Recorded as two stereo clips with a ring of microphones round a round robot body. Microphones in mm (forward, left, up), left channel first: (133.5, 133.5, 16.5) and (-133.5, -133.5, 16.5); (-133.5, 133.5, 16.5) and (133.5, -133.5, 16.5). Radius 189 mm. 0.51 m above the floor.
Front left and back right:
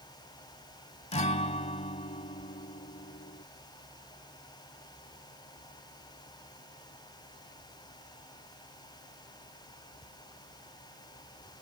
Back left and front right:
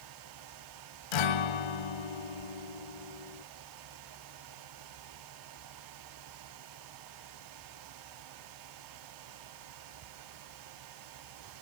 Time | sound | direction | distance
1.1 | a guitar | 120° left | ?